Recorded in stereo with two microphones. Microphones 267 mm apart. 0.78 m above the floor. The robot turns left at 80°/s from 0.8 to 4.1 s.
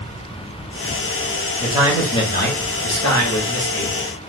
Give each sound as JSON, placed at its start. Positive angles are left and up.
{"t": 1.6, "sound": "a man speaking", "azimuth_deg": -150, "distance_m": 1.2}